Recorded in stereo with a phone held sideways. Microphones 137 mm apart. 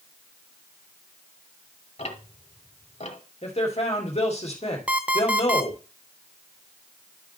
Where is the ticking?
55° left (ahead or behind), 1.4 m.